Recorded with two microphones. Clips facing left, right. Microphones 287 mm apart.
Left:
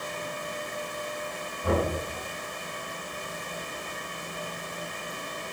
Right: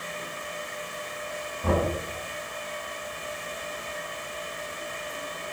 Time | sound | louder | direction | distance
1.6 | knocking | right 1 dB | 80° right | 3.5 m